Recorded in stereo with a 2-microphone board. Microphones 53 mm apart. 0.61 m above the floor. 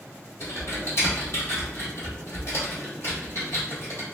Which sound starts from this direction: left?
Typing on a keyboard, at 0.4 s.